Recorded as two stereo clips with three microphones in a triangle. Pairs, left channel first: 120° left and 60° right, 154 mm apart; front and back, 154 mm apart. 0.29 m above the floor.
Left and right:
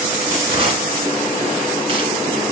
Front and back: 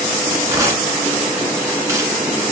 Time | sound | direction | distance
0.5 | tearing paper | 110° right | 1.4 m